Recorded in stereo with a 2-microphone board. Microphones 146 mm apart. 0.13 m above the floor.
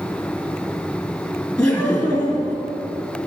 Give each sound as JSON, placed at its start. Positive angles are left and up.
{"t": 1.6, "sound": "laughter", "side_deg": 10, "distance_m": 2.0}